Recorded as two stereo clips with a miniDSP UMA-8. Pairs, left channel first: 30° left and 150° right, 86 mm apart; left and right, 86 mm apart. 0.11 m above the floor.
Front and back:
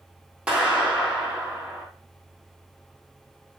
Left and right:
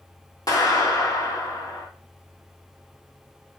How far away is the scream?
No scream in this recording.